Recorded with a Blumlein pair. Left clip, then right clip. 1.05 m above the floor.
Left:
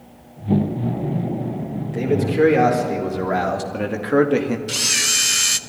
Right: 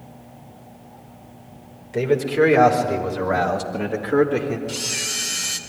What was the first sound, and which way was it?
A man speaking, 15° right.